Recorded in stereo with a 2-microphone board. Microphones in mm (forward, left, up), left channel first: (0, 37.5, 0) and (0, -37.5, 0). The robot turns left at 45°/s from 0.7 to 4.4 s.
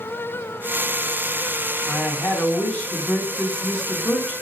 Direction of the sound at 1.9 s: 30° left (ahead or behind).